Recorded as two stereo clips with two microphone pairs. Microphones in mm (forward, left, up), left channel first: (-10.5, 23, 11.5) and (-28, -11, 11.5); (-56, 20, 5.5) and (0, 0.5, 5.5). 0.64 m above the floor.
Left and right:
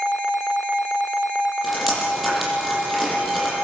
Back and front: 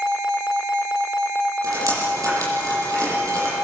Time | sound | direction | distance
1.6 | dripping | 35° right | 9 m